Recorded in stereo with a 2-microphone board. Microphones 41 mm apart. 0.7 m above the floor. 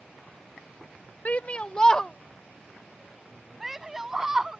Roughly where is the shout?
Left.